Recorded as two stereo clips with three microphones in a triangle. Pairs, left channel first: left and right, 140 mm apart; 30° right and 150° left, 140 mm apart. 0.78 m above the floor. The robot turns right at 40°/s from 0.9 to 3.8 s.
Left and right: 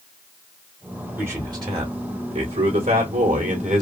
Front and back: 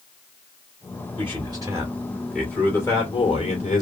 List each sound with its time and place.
1.2 s a man speaking: 165° right, 2.5 m; by 3.8 s 60° right, 2.5 m